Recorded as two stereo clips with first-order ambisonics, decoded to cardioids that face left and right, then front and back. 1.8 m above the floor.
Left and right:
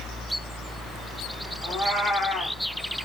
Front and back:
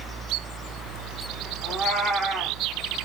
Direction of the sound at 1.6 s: 140° left.